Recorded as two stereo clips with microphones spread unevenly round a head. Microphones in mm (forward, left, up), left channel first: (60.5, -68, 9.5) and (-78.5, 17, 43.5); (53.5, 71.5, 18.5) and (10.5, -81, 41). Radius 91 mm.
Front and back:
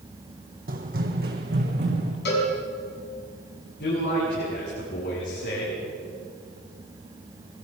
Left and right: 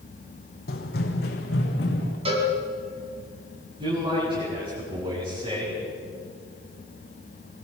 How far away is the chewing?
I don't hear chewing.